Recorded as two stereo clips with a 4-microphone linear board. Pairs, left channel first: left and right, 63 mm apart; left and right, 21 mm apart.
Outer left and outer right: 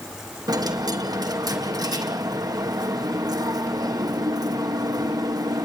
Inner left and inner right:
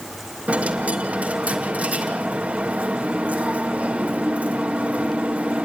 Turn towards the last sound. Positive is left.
turn(degrees=-85)